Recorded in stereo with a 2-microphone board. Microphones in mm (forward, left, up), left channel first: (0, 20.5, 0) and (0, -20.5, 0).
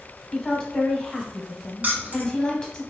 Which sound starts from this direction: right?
Keys jangling, at 1.8 s.